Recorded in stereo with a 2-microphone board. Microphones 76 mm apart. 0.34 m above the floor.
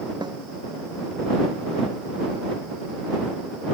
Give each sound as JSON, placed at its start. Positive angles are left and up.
{"t": 0.2, "sound": "a snare drum", "side_deg": -70}